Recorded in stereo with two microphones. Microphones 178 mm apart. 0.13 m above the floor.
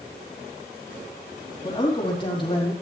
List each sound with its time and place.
1.6 s a man speaking: 25° left (ahead or behind), 4 m; by 2.7 s 30° left (ahead or behind), 4.5 m